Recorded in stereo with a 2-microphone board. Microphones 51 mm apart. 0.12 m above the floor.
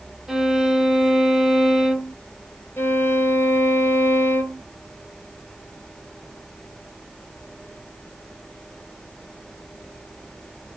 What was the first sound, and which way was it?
A violin, 5° right (ahead or behind).